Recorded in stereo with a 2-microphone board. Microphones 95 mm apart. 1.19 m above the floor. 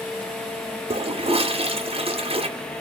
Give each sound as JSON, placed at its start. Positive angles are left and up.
{"t": 0.9, "sound": "a toilet flushing", "side_deg": -75, "distance_m": 0.5}